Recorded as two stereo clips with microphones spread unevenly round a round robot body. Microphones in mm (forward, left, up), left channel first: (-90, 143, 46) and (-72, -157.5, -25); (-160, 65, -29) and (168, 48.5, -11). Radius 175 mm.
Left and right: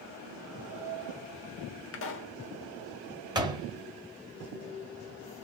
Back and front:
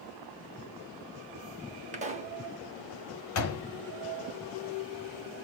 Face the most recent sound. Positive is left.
turn(degrees=-150)